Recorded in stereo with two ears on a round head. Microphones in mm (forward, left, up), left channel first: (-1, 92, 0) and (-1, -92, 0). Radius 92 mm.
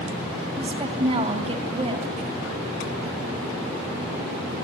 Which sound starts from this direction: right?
A woman speaking, at 0.6 s.